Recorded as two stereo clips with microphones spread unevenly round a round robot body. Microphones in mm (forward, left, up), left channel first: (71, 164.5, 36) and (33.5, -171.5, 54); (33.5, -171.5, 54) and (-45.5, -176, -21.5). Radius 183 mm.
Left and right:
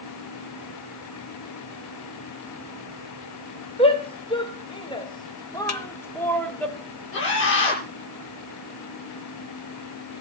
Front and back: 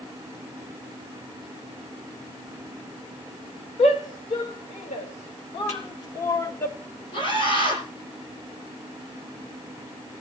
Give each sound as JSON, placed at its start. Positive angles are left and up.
{"t": 3.8, "sound": "a shout", "azimuth_deg": 15, "distance_m": 2.0}
{"t": 5.7, "sound": "a snare drum", "azimuth_deg": 45, "distance_m": 1.8}
{"t": 7.1, "sound": "a scream", "azimuth_deg": 35, "distance_m": 9.0}